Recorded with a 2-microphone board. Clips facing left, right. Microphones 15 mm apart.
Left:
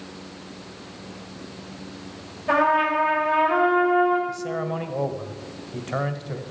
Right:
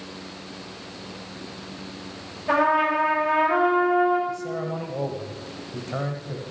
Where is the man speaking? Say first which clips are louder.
Left 1 dB; 30° left (ahead or behind), 1.3 m.